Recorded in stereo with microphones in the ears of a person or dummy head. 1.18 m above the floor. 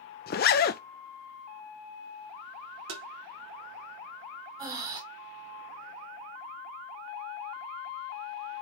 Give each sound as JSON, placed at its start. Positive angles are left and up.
{"t": 0.3, "sound": "a zipper", "side_deg": 40, "distance_m": 0.5}
{"t": 2.9, "sound": "tapping", "side_deg": -70, "distance_m": 1.9}
{"t": 4.6, "sound": "breathing", "side_deg": -20, "distance_m": 2.0}